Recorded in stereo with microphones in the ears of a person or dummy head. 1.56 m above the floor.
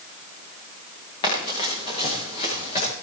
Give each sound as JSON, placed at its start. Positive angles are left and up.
{"t": 1.2, "sound": "running footsteps", "side_deg": 30, "distance_m": 7.5}